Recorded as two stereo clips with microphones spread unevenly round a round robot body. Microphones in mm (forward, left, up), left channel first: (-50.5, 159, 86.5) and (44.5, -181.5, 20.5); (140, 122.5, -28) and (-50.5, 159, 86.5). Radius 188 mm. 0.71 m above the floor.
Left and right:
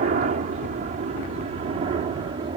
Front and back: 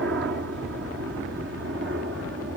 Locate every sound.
0.0 s a helicopter: 130° right; by 2.6 s 135° right